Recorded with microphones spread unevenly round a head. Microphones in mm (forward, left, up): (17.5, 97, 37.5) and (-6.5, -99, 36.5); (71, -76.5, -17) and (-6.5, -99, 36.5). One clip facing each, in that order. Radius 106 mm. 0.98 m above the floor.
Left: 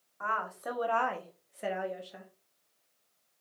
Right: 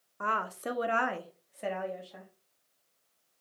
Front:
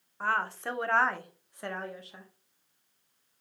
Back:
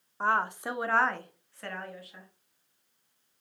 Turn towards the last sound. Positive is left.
turn(degrees=15)